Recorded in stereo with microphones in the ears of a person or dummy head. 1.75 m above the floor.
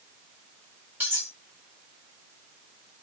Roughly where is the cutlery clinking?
Centre.